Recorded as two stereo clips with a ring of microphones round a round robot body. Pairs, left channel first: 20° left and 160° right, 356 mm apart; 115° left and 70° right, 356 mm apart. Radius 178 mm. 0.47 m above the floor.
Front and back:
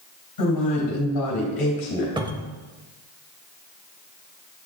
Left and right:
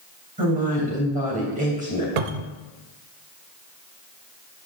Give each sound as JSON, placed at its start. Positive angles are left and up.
{"t": 0.4, "sound": "a woman speaking", "azimuth_deg": 0, "distance_m": 3.0}
{"t": 2.2, "sound": "a cupboard door", "azimuth_deg": -80, "distance_m": 0.6}